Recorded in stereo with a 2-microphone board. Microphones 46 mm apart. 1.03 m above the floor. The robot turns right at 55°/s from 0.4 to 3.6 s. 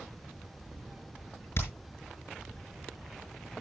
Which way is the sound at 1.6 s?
65° left (ahead or behind).